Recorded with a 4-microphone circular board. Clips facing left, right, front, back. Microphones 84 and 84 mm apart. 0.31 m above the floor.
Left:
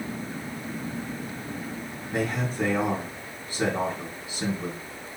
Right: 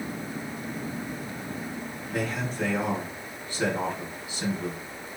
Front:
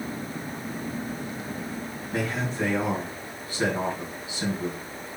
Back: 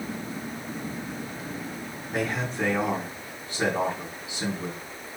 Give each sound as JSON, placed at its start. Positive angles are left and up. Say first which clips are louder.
{"t": 2.1, "sound": "a man speaking", "louder": "left 3 dB, even", "azimuth_deg": 120, "distance_m": 3.0}